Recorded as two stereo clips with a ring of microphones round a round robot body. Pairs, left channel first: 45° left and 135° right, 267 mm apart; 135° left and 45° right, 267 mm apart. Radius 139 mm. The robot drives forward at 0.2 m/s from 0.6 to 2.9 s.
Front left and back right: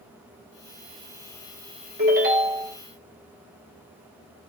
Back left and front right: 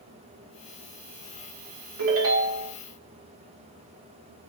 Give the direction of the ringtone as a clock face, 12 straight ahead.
3 o'clock.